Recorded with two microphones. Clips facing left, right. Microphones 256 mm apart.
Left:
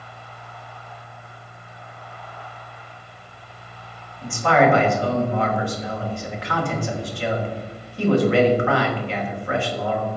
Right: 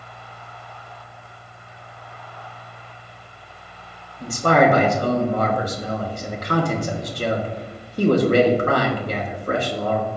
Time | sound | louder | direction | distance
4.2 | a man speaking | right 1 dB | 45° right (ahead or behind) | 0.9 m